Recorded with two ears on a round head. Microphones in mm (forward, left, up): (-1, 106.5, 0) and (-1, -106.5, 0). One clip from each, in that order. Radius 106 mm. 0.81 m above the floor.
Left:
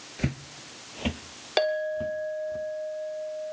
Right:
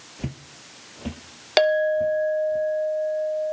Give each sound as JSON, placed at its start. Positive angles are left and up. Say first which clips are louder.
{"t": 0.2, "sound": "footsteps", "louder": "left 4 dB", "side_deg": 35, "distance_m": 0.9}
{"t": 1.6, "sound": "a clink", "louder": "right 7 dB", "side_deg": -30, "distance_m": 0.9}